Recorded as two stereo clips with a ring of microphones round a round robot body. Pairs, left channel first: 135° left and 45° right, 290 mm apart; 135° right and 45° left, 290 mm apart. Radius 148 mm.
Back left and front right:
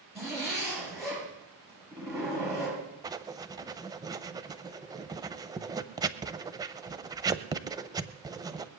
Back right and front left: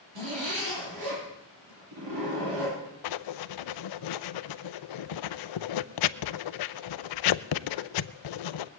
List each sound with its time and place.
0.1 s a zipper: 35° left, 8 m
3.0 s writing: 125° right, 0.6 m